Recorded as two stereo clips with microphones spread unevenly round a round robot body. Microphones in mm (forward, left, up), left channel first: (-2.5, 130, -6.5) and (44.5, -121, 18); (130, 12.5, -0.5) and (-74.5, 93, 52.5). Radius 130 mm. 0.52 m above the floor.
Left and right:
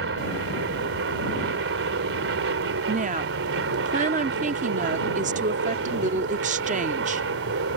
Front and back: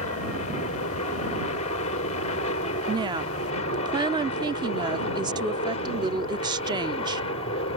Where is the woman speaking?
125° right.